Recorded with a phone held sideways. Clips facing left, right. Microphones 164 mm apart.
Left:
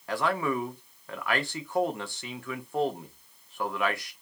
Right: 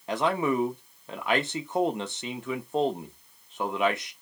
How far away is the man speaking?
About 0.6 m.